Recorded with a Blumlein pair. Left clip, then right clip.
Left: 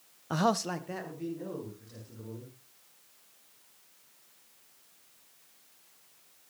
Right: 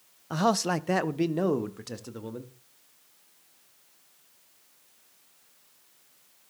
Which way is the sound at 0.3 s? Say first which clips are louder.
Right 3 dB; 5° left.